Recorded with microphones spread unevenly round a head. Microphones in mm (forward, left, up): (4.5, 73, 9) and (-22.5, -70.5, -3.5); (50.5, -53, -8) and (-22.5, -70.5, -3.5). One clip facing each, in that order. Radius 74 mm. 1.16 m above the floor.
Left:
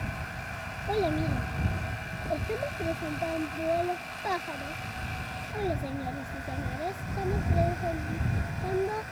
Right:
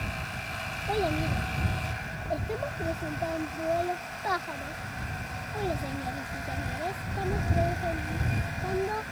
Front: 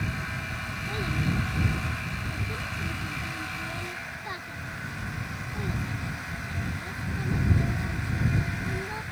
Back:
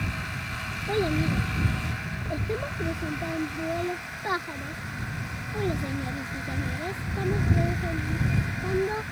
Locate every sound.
0.9 s a child speaking: 155° left